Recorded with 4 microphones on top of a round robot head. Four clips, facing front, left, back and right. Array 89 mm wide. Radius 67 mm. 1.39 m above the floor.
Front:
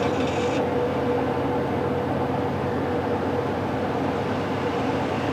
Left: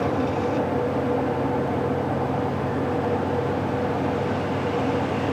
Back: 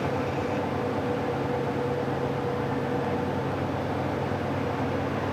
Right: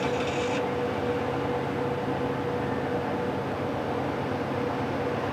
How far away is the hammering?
No hammering in this recording.